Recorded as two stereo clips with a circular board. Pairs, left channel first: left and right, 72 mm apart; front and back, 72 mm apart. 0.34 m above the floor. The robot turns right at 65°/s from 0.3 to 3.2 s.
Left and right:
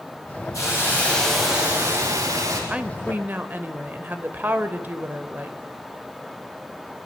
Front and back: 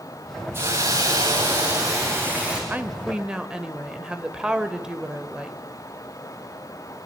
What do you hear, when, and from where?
0.5 s a hiss: 125° left, 8.5 m; by 2.6 s 105° right, 8.5 m
2.7 s a woman speaking: 145° right, 1.1 m; by 5.6 s 115° right, 1.1 m